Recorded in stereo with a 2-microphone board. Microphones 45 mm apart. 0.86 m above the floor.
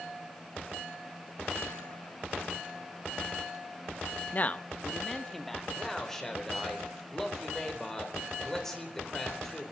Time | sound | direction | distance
4.3 | a man speaking | 40° left (ahead or behind) | 0.7 m
5.8 | a man speaking | 10° left (ahead or behind) | 3.5 m